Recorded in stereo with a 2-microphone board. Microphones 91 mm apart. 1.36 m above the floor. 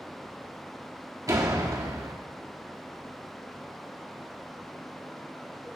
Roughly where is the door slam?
Right.